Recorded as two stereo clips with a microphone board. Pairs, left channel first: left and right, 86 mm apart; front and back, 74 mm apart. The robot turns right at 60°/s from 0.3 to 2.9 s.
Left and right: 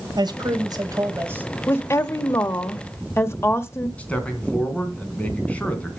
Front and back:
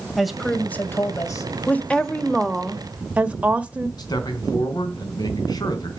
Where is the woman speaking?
45° left, 0.9 m; by 3.9 s 120° left, 0.9 m.